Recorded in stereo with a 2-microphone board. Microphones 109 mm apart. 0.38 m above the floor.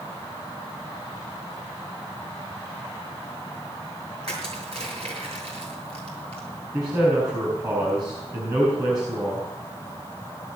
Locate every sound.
4.2 s crushing: 60° right (ahead or behind), 7.5 m
6.7 s a man speaking: 35° right (ahead or behind), 5 m